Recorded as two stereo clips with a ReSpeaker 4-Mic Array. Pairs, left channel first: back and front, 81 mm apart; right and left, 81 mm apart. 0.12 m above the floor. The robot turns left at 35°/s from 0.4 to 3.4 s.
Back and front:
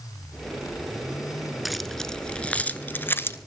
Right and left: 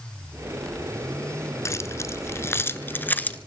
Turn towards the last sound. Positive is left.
turn(degrees=-150)